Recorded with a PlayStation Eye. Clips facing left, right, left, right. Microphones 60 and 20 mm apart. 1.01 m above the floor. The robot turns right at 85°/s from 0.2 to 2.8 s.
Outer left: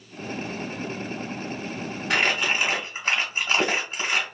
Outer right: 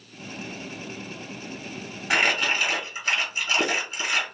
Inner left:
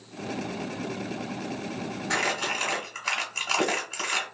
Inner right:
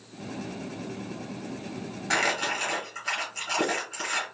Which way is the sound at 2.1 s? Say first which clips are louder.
Outer right 1 dB, inner right 1 dB; 20° right (ahead or behind).